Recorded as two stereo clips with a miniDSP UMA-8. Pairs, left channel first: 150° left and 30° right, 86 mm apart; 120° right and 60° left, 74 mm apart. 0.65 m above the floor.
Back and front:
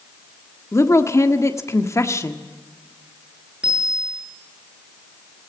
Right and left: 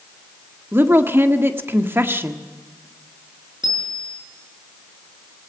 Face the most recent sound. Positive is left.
turn(degrees=50)